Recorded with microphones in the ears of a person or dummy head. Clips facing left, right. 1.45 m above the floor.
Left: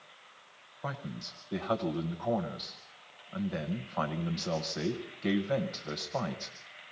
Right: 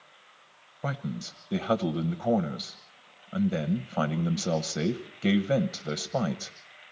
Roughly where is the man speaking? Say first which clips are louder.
Right 6 dB; right.